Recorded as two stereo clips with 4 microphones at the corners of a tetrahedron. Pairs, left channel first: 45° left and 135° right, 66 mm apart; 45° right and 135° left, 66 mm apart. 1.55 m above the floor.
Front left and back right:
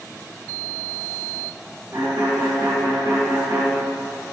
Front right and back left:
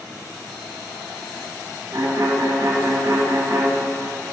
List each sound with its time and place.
1.9 s a violin: 170° left, 1.7 m